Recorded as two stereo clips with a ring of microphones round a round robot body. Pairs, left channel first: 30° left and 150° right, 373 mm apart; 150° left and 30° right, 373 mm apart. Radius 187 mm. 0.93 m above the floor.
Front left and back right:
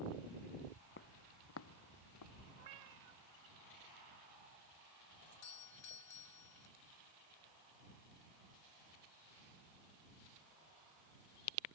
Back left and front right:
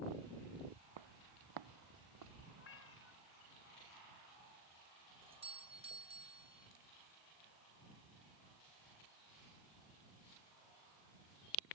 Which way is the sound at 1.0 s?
30° right.